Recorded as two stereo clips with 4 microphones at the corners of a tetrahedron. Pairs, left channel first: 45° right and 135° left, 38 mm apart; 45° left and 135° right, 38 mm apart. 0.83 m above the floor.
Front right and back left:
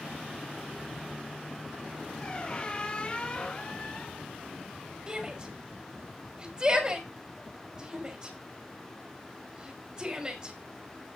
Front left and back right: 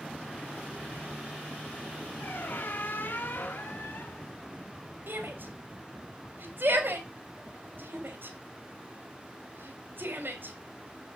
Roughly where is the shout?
Behind right.